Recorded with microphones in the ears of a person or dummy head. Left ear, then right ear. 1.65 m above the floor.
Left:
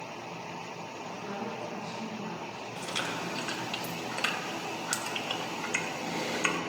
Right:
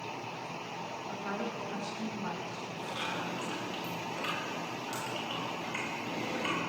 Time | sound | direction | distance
1.1 | a woman speaking | 50° right (ahead or behind) | 5 m
2.8 | chewing | 50° left (ahead or behind) | 2 m